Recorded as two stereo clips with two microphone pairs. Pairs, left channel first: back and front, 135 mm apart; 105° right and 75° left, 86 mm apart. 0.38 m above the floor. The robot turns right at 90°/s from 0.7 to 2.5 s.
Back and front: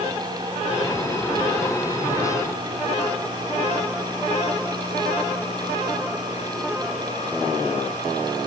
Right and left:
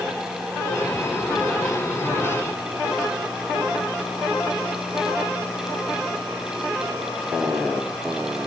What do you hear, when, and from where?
Only background noise.